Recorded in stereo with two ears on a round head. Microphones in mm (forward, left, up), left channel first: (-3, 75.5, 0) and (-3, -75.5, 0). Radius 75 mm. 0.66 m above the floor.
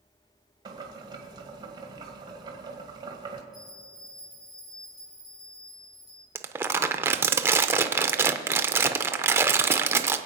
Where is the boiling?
25° right (ahead or behind), 1.7 m.